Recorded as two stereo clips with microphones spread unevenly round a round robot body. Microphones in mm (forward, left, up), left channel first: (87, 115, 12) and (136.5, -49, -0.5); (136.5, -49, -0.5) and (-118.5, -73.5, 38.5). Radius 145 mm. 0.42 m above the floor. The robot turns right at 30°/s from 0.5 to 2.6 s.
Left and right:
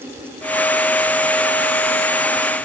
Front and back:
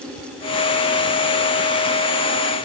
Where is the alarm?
No alarm in this recording.